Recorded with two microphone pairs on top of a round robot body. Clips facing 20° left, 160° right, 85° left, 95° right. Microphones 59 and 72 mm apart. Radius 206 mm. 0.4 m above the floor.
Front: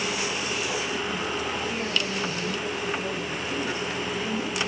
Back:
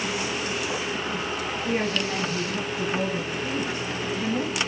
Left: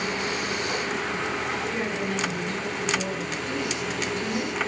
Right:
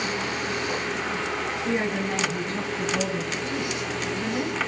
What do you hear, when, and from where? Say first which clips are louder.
1.6 s a woman speaking: back 3 dB, right 2 dB; 150° right, 6 m; by 4.6 s 165° right, 6.5 m